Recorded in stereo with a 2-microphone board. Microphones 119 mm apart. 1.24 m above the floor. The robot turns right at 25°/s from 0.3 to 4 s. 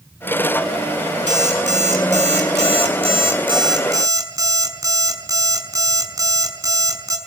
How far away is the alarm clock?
About 5.5 m.